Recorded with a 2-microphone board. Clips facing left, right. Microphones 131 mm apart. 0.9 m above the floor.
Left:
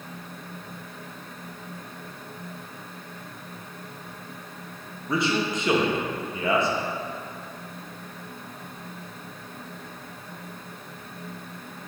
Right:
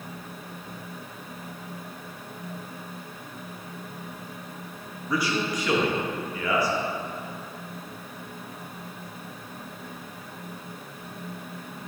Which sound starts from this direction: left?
A man speaking, at 5.1 s.